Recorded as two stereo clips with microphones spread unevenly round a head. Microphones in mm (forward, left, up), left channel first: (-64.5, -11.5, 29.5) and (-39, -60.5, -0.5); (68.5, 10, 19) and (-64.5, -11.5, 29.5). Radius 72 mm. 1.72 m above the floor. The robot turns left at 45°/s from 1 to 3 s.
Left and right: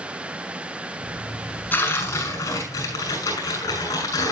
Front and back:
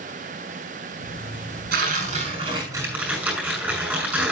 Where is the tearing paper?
165° left, 6.5 m; by 4.3 s 110° left, 6.5 m.